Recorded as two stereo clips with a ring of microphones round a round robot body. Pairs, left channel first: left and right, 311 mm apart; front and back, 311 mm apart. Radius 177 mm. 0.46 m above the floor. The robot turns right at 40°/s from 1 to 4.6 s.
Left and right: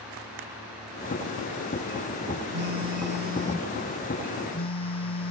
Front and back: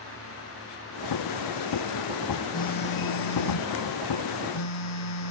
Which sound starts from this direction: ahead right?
A phone buzzing, at 2.5 s.